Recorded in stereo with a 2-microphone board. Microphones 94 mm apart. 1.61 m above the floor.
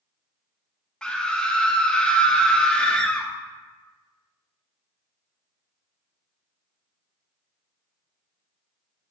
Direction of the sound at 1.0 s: 10° left (ahead or behind).